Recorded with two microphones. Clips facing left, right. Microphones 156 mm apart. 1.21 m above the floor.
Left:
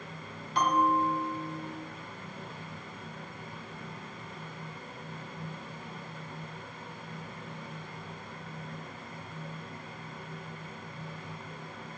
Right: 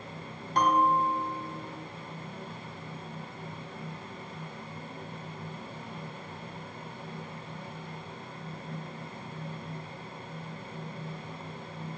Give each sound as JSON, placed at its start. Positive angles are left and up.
{"t": 0.6, "sound": "a bell", "side_deg": -45, "distance_m": 1.7}